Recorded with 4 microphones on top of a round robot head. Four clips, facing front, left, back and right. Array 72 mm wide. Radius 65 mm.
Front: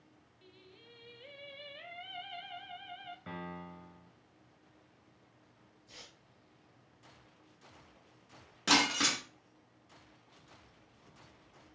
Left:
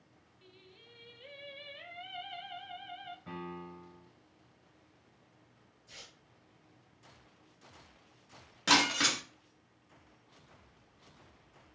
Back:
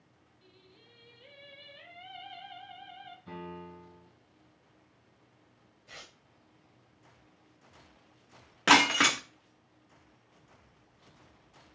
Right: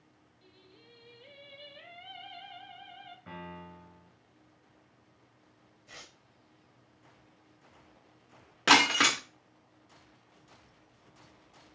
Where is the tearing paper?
150° right, 1.0 m.